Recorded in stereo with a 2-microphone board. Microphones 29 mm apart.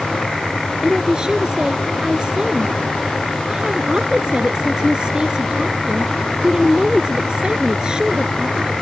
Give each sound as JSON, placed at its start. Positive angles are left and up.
{"t": 0.8, "sound": "a woman speaking", "side_deg": -30}